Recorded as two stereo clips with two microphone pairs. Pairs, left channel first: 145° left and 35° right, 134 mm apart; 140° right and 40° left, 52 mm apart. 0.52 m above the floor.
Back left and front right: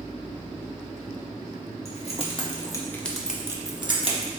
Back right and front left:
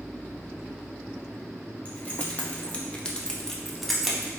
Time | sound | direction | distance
1.9 | keys jangling | 160° left | 1.0 m